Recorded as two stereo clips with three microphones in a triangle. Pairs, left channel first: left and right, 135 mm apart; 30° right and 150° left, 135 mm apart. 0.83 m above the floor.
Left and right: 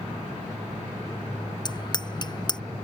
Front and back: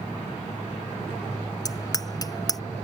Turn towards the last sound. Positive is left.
turn(degrees=35)